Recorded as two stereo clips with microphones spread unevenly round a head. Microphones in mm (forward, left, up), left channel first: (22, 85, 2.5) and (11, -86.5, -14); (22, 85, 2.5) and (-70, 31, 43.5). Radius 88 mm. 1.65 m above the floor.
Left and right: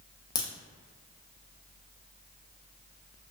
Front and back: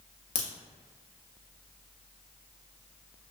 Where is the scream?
No scream in this recording.